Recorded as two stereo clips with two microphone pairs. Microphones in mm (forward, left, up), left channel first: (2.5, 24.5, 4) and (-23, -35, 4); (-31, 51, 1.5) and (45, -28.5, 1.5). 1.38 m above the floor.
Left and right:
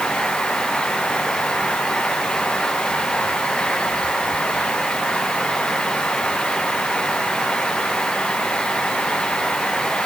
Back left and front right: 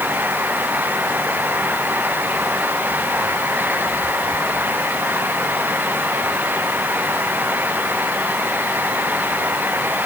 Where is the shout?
I don't hear a shout.